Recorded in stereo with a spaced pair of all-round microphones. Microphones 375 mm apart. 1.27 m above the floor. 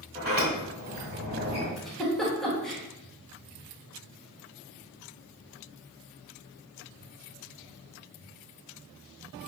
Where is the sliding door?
25° right (ahead or behind), 1.2 m.